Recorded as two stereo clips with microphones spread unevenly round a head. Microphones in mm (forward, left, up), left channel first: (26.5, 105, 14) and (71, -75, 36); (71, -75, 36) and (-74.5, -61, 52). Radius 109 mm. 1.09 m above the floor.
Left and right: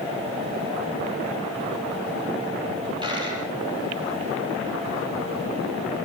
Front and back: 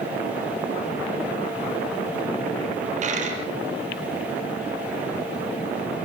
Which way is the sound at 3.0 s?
145° right.